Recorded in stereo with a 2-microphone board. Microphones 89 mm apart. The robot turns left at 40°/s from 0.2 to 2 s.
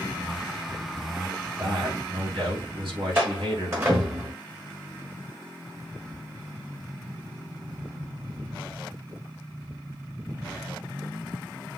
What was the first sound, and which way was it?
A man speaking, 55° right (ahead or behind).